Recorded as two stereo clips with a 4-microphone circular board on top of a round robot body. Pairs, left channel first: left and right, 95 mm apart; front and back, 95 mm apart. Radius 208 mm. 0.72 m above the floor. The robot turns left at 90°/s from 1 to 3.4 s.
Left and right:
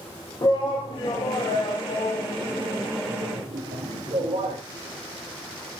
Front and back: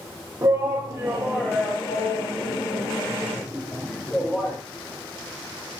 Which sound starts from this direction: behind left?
A shout, at 0.4 s.